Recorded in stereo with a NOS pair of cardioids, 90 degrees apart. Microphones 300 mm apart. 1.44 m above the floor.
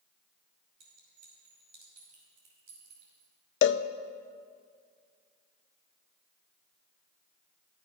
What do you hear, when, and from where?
0.8 s a clink: 70° right, 6 m
3.6 s a cowbell: 40° left, 0.5 m